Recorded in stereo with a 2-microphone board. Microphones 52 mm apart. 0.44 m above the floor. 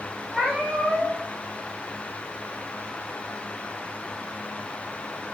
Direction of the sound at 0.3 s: 10° right (ahead or behind).